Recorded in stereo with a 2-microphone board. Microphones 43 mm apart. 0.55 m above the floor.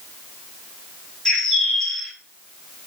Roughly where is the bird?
Centre.